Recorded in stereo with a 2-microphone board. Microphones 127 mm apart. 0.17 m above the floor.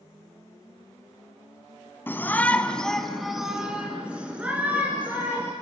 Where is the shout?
15° left (ahead or behind), 1.1 m; by 5.5 s 15° right (ahead or behind), 3 m.